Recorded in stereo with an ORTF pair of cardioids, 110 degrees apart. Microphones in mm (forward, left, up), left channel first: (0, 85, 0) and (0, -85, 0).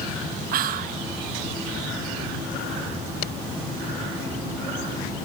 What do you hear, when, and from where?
0.5 s whispering: 60° right, 0.7 m